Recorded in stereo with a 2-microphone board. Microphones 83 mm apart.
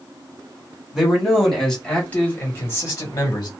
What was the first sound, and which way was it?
A man speaking, 5° right (ahead or behind).